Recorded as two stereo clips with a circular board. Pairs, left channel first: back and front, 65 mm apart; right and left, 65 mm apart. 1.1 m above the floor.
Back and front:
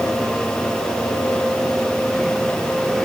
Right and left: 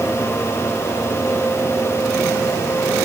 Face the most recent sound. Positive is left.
No sound to turn to.